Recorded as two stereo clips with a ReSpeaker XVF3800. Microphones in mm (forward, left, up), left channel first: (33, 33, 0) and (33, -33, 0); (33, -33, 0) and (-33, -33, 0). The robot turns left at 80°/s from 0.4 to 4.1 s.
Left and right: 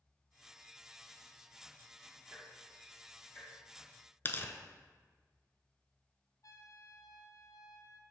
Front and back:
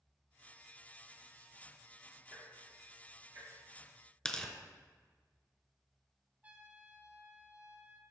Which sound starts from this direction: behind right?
Ticking, at 2.3 s.